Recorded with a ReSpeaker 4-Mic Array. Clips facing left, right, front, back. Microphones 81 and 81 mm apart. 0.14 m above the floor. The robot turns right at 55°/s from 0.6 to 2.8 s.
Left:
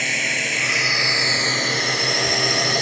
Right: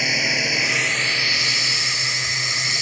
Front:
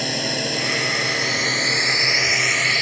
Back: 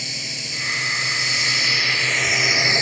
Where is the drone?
5° right; by 2.8 s 115° left.